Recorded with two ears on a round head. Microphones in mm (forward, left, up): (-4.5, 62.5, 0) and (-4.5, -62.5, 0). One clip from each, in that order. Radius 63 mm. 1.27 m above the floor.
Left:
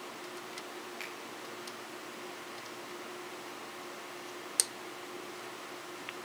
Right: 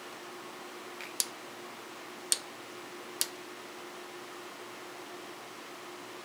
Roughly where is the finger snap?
Centre.